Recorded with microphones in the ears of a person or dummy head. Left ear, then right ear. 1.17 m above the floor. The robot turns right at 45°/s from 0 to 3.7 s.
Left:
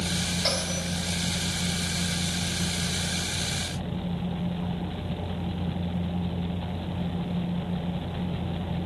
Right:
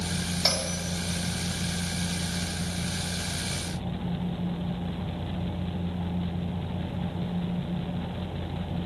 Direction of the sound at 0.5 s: 30° right (ahead or behind).